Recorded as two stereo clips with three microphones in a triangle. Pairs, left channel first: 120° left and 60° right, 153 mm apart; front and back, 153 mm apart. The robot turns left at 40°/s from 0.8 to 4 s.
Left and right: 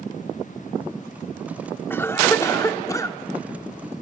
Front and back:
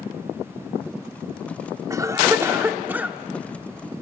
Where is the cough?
165° left, 0.8 m; by 3.2 s 115° left, 0.8 m.